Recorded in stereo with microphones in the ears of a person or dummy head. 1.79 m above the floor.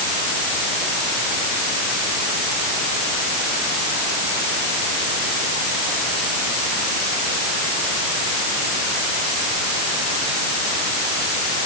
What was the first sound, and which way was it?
Only background noise.